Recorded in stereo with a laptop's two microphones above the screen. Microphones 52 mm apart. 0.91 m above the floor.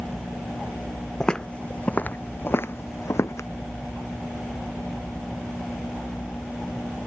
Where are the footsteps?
15° left (ahead or behind); by 3.5 s 70° left (ahead or behind).